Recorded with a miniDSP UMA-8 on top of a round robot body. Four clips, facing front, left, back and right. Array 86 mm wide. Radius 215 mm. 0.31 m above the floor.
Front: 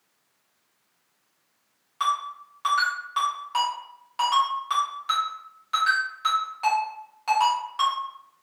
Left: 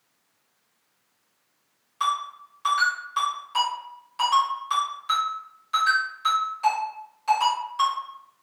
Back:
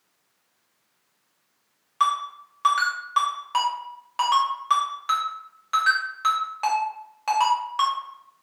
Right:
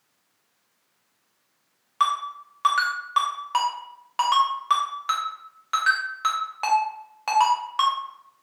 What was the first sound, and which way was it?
A ringtone, 115° right.